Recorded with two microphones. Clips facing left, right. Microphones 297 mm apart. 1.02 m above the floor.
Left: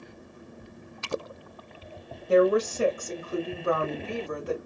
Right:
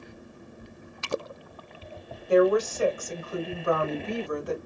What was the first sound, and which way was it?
A woman speaking, 25° left (ahead or behind).